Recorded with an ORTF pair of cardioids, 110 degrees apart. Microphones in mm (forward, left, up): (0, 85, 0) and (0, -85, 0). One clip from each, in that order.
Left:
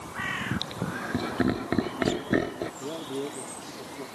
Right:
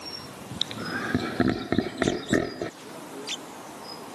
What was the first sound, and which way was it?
Laughter, 30° right.